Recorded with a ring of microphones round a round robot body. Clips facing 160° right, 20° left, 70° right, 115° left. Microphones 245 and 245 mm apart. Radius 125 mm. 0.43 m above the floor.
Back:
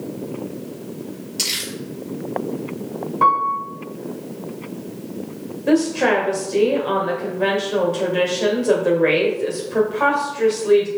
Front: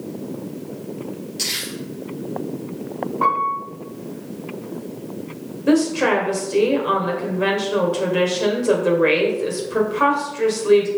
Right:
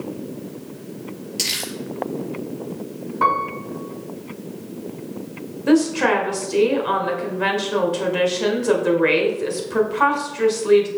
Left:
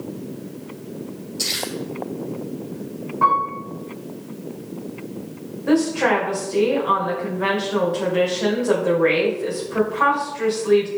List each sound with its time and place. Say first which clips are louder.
1.4 s crumpling: even, left 2 dB; 80° right, 4.5 m
3.2 s a piano: back 1 dB, right 3 dB; 100° right, 3 m
5.7 s a woman speaking: even, right 2 dB; 50° right, 2 m